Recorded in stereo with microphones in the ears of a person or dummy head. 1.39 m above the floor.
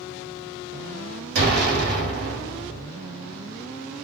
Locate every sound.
1.4 s an explosion: 55° right (ahead or behind), 1.0 m